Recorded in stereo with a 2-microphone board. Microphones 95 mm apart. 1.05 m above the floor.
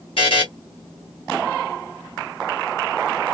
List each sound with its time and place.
0.2 s a buzzer: 70° left (ahead or behind), 1.3 m